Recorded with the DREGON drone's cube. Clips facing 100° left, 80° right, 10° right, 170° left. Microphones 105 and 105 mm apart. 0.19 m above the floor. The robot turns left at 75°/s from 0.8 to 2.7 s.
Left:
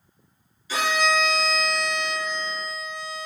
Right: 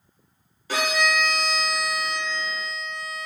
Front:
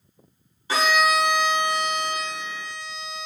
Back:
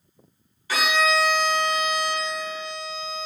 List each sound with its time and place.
0.7 s a violin: 70° right, 0.9 m; by 3.3 s 145° left, 0.9 m